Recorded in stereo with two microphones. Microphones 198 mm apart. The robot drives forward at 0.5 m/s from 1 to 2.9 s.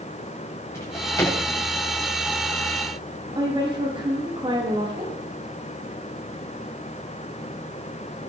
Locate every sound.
0.7 s a drawer: 15° left (ahead or behind), 8 m
3.4 s a woman speaking: 25° right (ahead or behind), 5 m